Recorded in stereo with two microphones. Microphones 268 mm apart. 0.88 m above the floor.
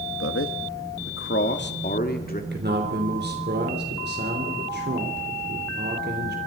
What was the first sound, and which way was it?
A man speaking, 60° left (ahead or behind).